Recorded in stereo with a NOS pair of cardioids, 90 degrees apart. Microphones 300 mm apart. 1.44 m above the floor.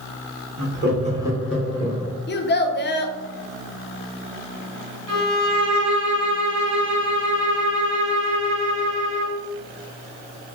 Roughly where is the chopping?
I don't hear chopping.